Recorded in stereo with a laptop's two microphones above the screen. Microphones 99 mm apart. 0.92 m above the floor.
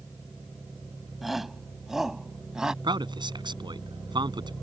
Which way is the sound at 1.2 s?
Centre (ahead or behind).